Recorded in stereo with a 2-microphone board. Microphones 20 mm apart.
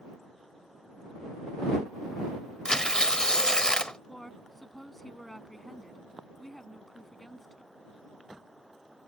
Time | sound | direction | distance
2.6 | tearing paper | 45° left (ahead or behind) | ?
4.1 | a woman speaking | 15° left (ahead or behind) | ?